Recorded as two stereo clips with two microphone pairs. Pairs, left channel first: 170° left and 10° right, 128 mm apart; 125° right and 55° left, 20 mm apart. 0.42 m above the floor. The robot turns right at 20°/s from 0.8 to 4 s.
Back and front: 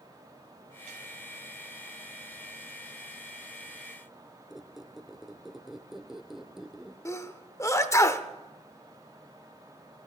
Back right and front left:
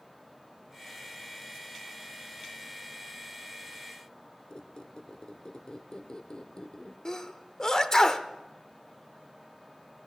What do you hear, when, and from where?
4.5 s a squeak: 100° right, 0.5 m
7.0 s a sneeze: 150° right, 0.8 m